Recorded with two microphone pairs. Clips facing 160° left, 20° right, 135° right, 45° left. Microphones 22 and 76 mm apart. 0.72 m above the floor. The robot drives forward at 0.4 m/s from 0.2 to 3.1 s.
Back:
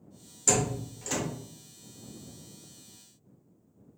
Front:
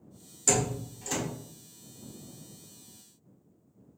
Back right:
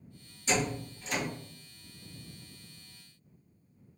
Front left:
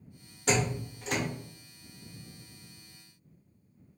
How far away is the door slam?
About 1.2 m.